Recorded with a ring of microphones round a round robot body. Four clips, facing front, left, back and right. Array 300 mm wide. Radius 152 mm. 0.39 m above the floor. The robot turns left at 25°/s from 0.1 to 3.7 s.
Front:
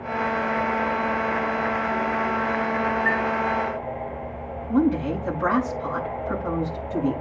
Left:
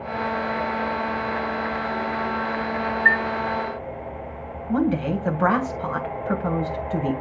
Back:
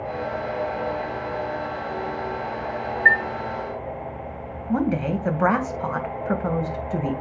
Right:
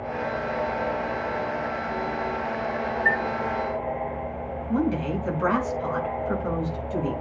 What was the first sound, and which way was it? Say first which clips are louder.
A chime: left 4 dB, back 3 dB; 150° left.